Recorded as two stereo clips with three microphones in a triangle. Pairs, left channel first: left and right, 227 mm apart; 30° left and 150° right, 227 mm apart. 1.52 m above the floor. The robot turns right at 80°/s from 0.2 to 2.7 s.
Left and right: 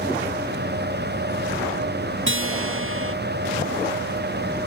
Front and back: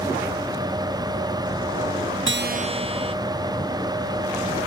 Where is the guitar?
120° right; by 3.1 s 85° right.